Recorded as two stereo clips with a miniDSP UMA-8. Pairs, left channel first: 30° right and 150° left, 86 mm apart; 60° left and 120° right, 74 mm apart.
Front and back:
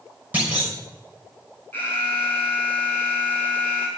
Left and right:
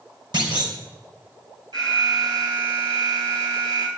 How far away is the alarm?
About 6.5 m.